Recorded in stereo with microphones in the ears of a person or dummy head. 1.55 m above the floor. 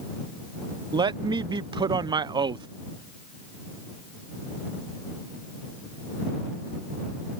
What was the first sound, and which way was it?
A man speaking, 30° right (ahead or behind).